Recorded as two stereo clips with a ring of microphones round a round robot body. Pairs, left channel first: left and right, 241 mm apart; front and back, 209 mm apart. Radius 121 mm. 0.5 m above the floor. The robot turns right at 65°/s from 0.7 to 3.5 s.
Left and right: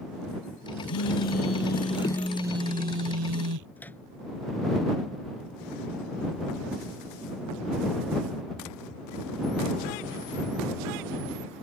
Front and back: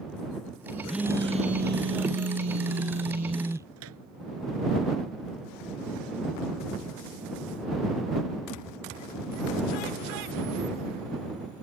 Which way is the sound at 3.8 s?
175° left.